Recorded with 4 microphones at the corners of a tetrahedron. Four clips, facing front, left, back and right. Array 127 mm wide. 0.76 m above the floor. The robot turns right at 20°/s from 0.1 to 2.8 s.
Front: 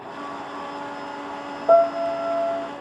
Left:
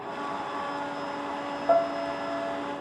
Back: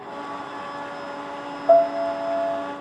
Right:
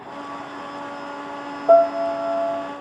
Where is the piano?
55° right, 1.6 m; by 2.7 s 35° right, 1.6 m.